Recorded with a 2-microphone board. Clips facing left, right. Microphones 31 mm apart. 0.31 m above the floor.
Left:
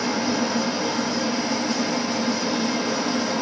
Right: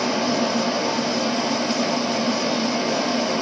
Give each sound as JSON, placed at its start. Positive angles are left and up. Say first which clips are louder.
{"t": 0.0, "sound": "running water", "louder": "right 2 dB", "side_deg": -55, "distance_m": 1.0}